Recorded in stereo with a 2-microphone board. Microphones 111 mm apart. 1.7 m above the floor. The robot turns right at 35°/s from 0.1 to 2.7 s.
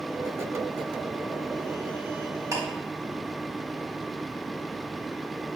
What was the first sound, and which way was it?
Ticking, 30° right (ahead or behind).